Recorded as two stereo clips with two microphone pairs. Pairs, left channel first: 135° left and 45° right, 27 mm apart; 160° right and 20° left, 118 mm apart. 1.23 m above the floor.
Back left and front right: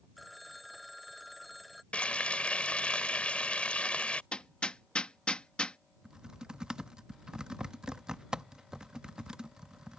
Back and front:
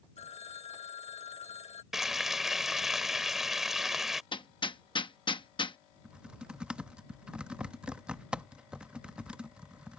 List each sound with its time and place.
0.2 s a phone ringing: 135° right
1.9 s frying: 105° left
4.3 s hammering: 170° left
6.0 s typing on a keyboard: 55° right